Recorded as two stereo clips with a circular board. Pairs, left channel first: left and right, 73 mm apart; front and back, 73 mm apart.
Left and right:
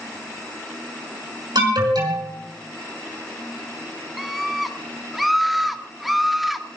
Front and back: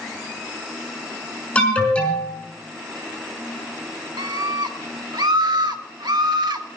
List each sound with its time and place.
1.6 s an alarm: 75° right, 5.5 m
4.2 s a scream: straight behind, 1.8 m